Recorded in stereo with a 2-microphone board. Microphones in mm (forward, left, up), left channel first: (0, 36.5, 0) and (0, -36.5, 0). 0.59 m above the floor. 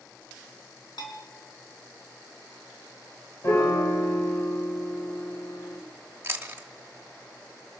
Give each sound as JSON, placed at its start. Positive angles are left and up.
{"t": 1.0, "sound": "a bell", "side_deg": 85, "distance_m": 3.5}
{"t": 3.4, "sound": "a piano", "side_deg": 45, "distance_m": 1.7}
{"t": 6.2, "sound": "chewing", "side_deg": -30, "distance_m": 1.0}